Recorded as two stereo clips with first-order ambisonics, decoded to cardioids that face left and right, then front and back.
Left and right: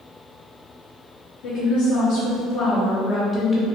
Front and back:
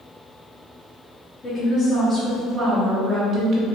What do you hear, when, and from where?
1.4 s a woman speaking: 70° left, 1.2 m; by 3.6 s 170° left, 1.0 m